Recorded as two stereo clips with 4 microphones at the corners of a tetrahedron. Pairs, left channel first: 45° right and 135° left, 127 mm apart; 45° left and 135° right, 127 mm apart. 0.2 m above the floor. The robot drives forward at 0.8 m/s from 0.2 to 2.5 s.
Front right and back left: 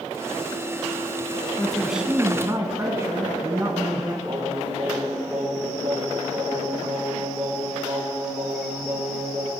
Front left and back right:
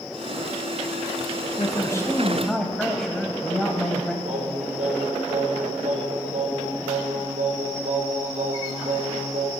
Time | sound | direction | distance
1.6 | a man speaking | 35° left | 1.1 m
4.2 | singing | 160° right | 3.5 m